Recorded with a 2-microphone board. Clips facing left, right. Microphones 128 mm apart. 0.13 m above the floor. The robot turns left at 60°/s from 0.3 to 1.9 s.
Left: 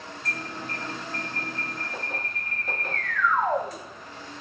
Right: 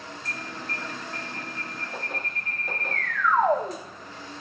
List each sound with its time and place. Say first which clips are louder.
0.2 s an alarm: left 3 dB; 20° right, 3.5 m; by 3.8 s 115° right, 3.5 m